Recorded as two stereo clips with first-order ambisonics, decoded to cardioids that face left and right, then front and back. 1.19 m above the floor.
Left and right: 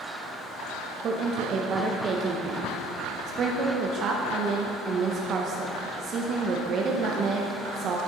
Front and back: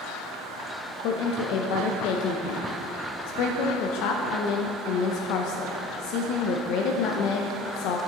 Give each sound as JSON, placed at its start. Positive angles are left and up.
{"t": 1.0, "sound": "a woman speaking", "azimuth_deg": -35, "distance_m": 0.6}